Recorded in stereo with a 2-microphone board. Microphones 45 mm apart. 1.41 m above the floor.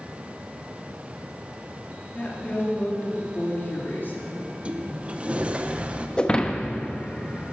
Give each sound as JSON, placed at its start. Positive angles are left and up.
{"t": 2.1, "sound": "a woman speaking", "side_deg": 25, "distance_m": 3.0}
{"t": 4.4, "sound": "a sliding door", "side_deg": -30, "distance_m": 0.8}
{"t": 6.2, "sound": "breaking glass", "side_deg": 20, "distance_m": 1.0}